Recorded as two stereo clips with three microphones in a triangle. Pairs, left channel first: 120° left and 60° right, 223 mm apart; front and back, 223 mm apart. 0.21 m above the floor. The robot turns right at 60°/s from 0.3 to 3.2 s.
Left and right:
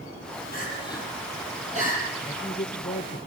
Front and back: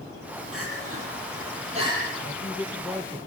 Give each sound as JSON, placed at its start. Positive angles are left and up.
{"t": 0.5, "sound": "crying", "azimuth_deg": 165, "distance_m": 8.0}
{"t": 2.2, "sound": "a man speaking", "azimuth_deg": 45, "distance_m": 5.0}